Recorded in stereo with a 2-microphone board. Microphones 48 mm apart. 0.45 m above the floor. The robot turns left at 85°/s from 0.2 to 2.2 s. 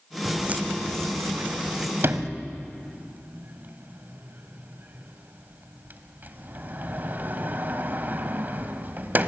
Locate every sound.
0.2 s footsteps: centre (ahead or behind), 1.4 m
2.0 s a sliding door: 60° right (ahead or behind), 1.3 m; by 9.3 s 45° right (ahead or behind), 1.3 m